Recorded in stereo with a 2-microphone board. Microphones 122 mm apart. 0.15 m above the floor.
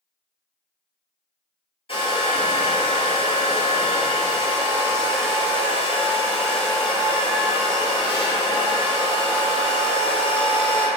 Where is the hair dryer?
50° left (ahead or behind), 0.7 m.